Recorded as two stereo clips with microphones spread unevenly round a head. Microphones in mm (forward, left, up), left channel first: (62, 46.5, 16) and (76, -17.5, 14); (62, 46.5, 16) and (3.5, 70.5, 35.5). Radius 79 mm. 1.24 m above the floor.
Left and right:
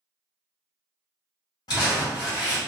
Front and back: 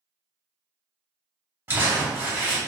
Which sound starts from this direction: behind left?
Crumpling, at 1.7 s.